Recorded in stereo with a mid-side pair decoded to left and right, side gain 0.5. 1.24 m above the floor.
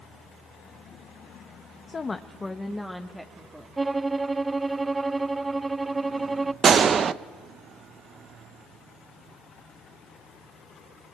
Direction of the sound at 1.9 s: 35° left.